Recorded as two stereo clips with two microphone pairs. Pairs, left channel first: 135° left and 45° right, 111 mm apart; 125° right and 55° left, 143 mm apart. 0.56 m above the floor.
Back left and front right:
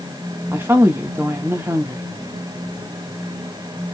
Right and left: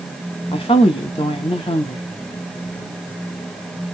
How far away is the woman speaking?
About 0.8 m.